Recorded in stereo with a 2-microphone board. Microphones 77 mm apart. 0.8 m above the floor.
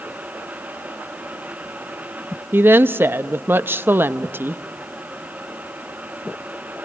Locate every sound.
2.5 s a woman speaking: 30° right (ahead or behind), 0.5 m